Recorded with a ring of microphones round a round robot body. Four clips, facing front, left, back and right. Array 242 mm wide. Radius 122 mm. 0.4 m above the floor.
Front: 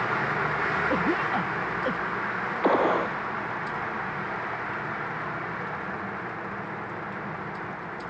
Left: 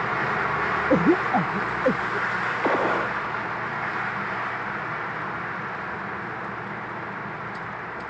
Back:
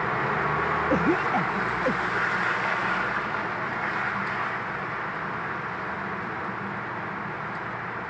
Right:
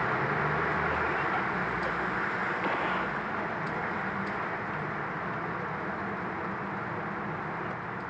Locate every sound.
0.9 s a cough: 100° left
2.6 s a gunshot: 35° left